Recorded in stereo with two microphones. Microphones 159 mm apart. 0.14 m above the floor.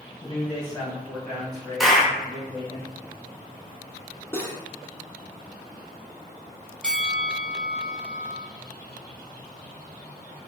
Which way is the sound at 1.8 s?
Centre (ahead or behind).